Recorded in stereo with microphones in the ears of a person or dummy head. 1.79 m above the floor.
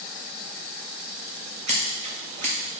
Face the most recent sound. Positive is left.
turn(degrees=-45)  # may be behind; listen again after turning